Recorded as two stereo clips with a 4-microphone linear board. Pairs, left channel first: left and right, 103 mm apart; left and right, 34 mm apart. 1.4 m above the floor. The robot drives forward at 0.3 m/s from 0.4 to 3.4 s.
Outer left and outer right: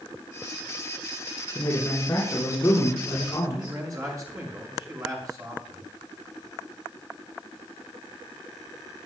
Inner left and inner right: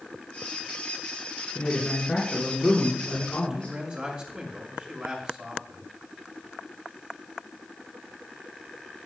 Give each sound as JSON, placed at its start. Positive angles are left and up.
{"t": 1.6, "sound": "a man speaking", "side_deg": 30, "distance_m": 4.0}
{"t": 3.5, "sound": "a man speaking", "side_deg": -35, "distance_m": 5.5}